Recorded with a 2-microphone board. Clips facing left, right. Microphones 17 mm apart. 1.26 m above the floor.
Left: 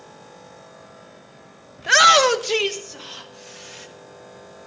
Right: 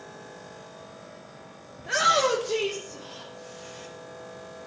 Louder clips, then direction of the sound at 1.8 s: Left 9 dB; 55° left (ahead or behind).